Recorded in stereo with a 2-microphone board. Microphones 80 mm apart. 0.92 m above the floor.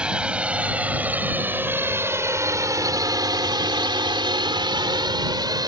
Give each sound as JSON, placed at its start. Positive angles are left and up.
{"t": 0.0, "sound": "a drone", "side_deg": -10}